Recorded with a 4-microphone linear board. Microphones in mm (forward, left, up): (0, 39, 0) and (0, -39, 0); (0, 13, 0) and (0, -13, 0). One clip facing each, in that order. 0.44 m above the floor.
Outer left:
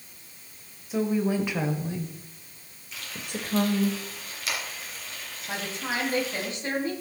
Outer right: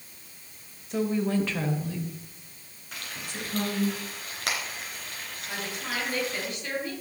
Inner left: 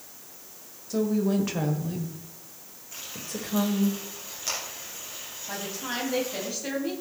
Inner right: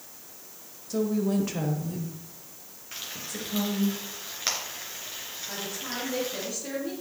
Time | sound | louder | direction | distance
0.9 | a woman speaking | outer left 1 dB, inner left 1 dB | 5° left (ahead or behind) | 1.9 m
2.9 | frying | outer left 2 dB, even | 55° right (ahead or behind) | 3.5 m
5.5 | a woman speaking | outer left 3 dB, inner left 3 dB | 30° left (ahead or behind) | 2.5 m